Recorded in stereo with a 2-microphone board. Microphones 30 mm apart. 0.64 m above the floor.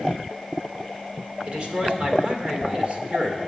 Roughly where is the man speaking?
Right.